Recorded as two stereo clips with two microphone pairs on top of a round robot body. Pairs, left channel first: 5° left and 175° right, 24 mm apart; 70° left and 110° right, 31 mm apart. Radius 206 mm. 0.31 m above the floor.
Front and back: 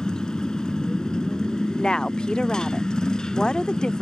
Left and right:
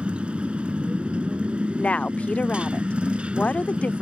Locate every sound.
0.0 s a motorcycle: 55° right
1.8 s a woman speaking: 45° left